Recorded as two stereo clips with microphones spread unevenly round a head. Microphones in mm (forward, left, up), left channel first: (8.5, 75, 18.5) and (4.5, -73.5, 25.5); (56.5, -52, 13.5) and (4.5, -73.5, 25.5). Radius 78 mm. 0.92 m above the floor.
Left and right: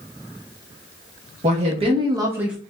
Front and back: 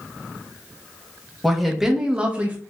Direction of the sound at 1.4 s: 60° right.